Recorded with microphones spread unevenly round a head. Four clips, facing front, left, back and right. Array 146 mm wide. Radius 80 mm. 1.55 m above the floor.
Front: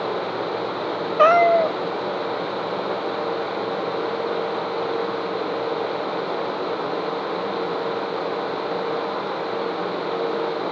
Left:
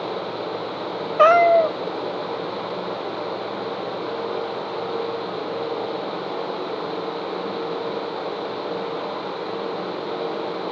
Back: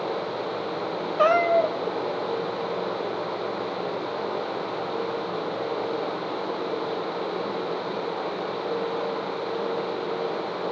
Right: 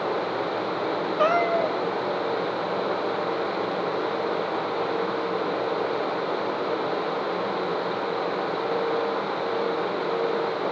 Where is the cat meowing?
95° left, 1.4 m.